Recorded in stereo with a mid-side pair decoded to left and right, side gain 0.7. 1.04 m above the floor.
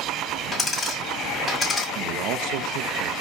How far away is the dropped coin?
About 2 m.